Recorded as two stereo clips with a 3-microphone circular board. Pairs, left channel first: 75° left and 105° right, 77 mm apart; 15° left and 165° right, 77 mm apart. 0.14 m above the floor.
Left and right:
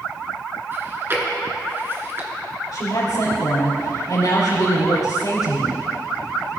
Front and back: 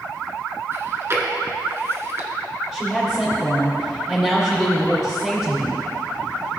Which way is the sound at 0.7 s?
140° right.